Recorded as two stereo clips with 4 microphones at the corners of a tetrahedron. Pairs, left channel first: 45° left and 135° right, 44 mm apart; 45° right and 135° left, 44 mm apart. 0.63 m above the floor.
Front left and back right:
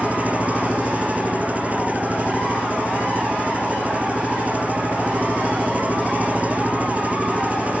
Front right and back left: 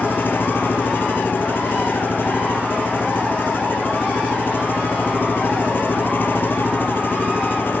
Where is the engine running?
80° right.